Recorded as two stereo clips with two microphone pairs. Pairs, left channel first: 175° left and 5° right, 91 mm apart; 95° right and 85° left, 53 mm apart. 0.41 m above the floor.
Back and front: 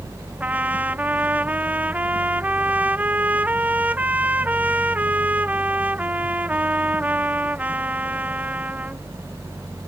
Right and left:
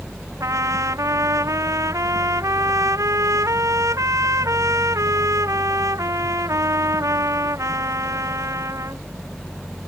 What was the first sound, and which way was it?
A trumpet, 70° left.